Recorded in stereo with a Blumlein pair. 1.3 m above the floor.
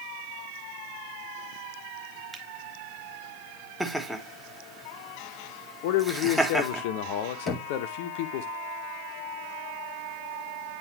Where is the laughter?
Straight ahead, 1.5 m.